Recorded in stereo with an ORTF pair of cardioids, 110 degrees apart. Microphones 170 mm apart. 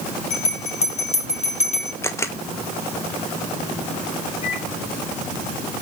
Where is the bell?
45° left, 3 m.